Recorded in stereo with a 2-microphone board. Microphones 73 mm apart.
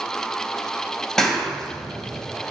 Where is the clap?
10° left (ahead or behind), 1.2 m.